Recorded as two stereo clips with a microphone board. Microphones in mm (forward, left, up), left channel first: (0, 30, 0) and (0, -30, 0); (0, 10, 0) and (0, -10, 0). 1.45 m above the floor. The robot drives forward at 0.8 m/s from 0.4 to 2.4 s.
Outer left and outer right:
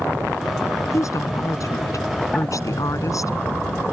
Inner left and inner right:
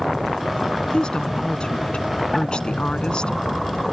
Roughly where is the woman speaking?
Left.